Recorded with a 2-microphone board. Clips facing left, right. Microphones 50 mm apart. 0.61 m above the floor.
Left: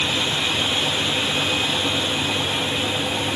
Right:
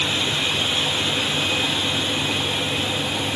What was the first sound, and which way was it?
Only background noise.